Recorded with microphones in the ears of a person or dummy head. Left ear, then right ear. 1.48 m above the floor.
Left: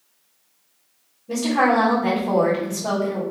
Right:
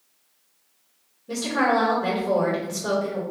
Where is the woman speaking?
30° right (ahead or behind), 1.8 m.